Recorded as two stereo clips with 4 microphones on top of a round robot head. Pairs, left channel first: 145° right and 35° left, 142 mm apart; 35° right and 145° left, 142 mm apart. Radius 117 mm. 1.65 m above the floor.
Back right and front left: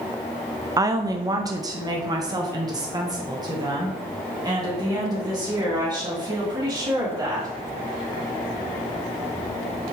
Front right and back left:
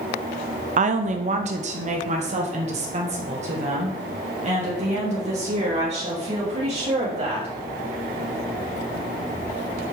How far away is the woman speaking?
About 0.6 m.